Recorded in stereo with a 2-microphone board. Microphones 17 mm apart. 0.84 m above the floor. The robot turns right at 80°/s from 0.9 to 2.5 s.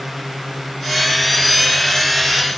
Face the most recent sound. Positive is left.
No sound to turn to.